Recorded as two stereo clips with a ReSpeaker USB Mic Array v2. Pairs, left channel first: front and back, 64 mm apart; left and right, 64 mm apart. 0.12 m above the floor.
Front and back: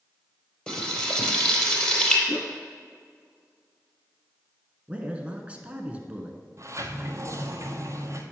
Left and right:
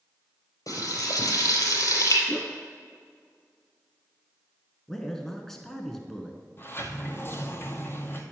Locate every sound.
0.7 s frying: 75° left, 3 m
2.3 s a whoosh: 15° left, 0.6 m
4.9 s a man speaking: 165° left, 1.1 m
6.6 s a sliding door: 140° left, 1.1 m